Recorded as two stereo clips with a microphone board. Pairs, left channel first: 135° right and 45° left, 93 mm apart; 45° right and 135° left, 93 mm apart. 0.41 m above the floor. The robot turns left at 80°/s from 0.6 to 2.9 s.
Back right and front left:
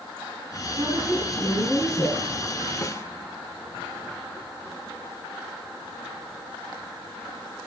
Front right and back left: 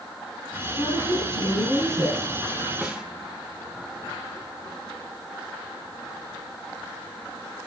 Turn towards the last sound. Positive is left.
turn(degrees=-150)